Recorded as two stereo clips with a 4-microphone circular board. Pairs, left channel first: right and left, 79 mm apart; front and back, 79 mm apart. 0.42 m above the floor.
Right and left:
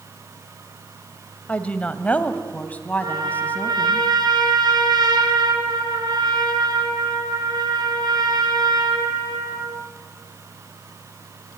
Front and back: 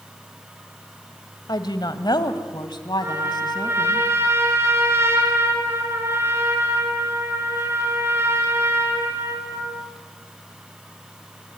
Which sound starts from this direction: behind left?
A trumpet, at 3.0 s.